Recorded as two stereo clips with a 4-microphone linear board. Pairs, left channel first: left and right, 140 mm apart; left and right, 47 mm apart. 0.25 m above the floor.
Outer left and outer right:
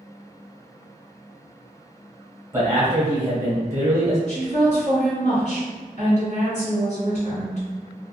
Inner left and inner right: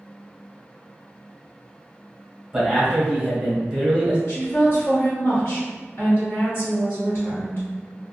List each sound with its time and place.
2.5 s a man speaking: 20° right (ahead or behind), 1.1 m
4.3 s a woman speaking: 55° left (ahead or behind), 1.9 m